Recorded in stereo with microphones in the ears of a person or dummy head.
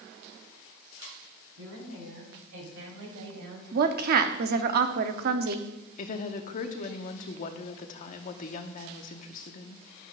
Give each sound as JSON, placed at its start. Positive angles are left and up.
{"t": 1.6, "sound": "a woman speaking", "side_deg": -85, "distance_m": 4.5}
{"t": 3.7, "sound": "a woman speaking", "side_deg": -50, "distance_m": 0.8}
{"t": 6.0, "sound": "a woman speaking", "side_deg": 45, "distance_m": 0.9}